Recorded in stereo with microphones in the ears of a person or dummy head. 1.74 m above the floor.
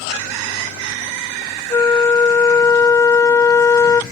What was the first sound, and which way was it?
A flute, 20° left (ahead or behind).